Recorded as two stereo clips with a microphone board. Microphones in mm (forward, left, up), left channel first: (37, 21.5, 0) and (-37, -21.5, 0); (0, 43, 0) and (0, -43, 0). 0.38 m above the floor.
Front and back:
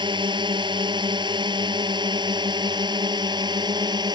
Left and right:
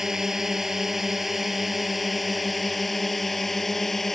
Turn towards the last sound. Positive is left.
turn(degrees=175)